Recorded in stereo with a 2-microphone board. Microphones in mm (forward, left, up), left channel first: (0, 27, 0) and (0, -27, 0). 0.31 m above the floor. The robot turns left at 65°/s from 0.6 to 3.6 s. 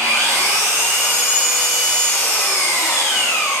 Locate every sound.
0.0 s an engine running: 105° right, 1.5 m; by 3.6 s 60° left, 1.5 m